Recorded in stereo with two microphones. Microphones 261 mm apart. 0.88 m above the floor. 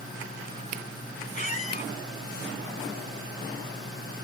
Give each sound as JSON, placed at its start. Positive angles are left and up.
{"t": 1.3, "sound": "a squeak", "side_deg": 30, "distance_m": 0.9}